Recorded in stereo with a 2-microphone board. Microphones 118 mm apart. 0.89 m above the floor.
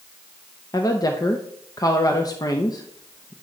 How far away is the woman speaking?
About 0.7 m.